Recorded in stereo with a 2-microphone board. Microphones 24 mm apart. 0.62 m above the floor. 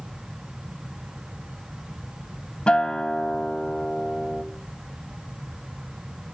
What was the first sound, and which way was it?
A guitar, 45° left (ahead or behind).